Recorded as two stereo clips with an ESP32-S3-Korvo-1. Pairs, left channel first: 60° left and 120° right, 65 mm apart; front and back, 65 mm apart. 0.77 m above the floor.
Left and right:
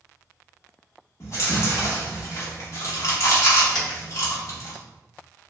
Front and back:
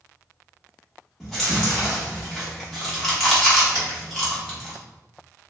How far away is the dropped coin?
About 1.2 m.